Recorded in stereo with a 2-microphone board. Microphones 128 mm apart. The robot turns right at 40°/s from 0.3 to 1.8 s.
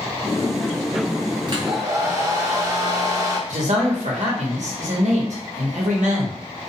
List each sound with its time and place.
1.5 s a hair dryer: 40° right (ahead or behind), 0.7 m; by 3.4 s 25° right (ahead or behind), 0.7 m
3.5 s a man speaking: 75° right (ahead or behind), 0.9 m